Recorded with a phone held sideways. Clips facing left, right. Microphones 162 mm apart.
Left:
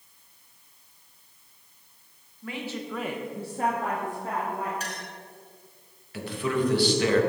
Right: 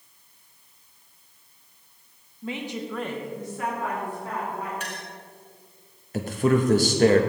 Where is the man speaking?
45° right (ahead or behind), 0.8 m.